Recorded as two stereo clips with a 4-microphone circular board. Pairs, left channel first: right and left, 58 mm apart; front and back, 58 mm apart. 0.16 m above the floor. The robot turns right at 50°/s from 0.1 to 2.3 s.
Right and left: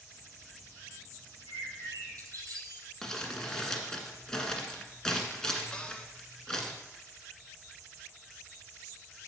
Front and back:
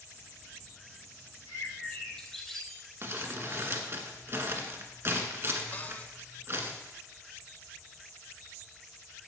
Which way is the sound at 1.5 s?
40° left.